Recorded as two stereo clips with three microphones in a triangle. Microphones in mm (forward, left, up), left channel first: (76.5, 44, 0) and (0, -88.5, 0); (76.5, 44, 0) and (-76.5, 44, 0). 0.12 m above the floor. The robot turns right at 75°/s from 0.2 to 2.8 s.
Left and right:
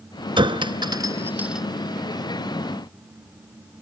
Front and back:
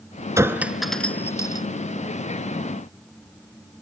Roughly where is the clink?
Behind right.